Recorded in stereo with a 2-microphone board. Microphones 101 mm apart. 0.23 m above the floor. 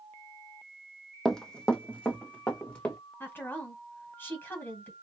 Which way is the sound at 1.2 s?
5° left (ahead or behind).